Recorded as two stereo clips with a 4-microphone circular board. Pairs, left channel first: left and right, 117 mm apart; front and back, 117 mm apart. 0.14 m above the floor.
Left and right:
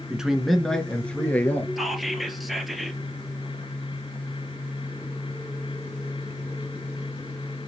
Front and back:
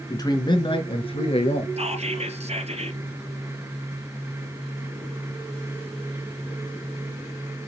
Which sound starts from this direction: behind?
Whispering, at 1.8 s.